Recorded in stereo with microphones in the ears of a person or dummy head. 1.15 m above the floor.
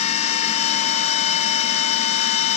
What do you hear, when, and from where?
0.0 s a machine running: 40° left (ahead or behind), 1.3 m